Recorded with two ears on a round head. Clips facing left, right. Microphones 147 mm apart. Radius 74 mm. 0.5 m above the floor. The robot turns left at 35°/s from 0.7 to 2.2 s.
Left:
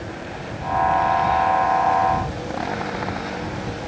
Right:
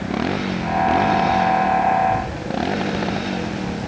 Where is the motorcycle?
80° right; by 3.9 s 35° right (ahead or behind).